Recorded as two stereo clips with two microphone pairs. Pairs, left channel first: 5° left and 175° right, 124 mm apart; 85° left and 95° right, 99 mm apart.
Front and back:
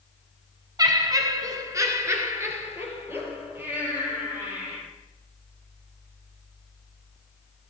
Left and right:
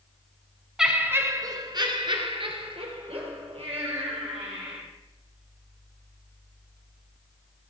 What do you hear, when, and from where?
0.8 s laughter: 175° right, 1.1 m; by 4.8 s 100° right, 5 m